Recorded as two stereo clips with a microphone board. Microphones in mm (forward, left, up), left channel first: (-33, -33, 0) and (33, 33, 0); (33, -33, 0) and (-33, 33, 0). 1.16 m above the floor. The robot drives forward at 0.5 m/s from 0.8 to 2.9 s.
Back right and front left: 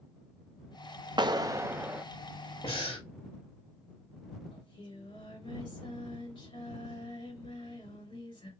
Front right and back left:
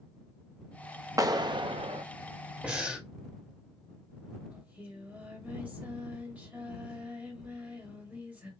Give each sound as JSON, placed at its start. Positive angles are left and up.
{"t": 1.2, "sound": "a clap", "azimuth_deg": 80, "distance_m": 0.5}
{"t": 2.6, "sound": "breathing", "azimuth_deg": -150, "distance_m": 2.0}
{"t": 4.5, "sound": "singing", "azimuth_deg": -155, "distance_m": 2.0}